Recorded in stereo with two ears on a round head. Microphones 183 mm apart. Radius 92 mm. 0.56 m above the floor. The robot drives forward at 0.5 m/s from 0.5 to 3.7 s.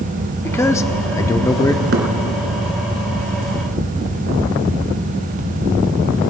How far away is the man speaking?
About 0.7 m.